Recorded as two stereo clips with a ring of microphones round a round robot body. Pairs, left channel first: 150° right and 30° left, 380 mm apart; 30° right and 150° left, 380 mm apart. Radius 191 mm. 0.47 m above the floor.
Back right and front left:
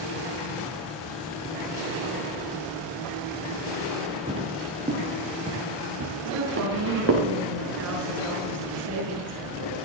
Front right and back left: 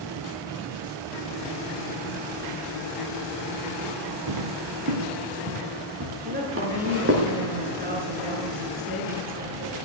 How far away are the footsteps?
About 3 m.